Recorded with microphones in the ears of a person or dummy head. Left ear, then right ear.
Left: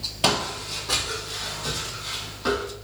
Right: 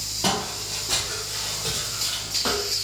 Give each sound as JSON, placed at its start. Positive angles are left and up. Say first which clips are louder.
{"t": 0.2, "sound": "footsteps", "louder": "left 3 dB", "side_deg": 20, "distance_m": 1.2}